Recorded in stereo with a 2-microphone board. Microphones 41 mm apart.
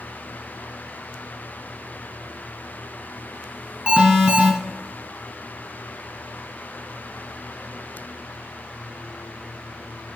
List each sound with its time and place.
3.9 s an alarm: 25° right (ahead or behind), 1.5 m